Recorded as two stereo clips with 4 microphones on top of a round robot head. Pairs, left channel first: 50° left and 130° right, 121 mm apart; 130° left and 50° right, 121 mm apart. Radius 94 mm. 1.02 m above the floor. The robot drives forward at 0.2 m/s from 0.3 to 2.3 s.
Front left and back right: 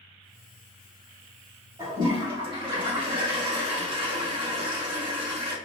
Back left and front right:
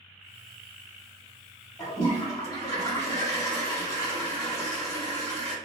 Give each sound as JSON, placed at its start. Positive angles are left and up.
{"t": 1.8, "sound": "a toilet flushing", "azimuth_deg": -170, "distance_m": 1.4}